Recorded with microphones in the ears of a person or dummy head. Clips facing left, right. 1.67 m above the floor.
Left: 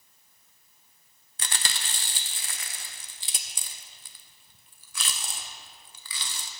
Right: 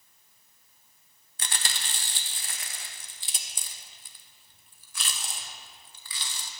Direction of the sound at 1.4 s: 60° left (ahead or behind).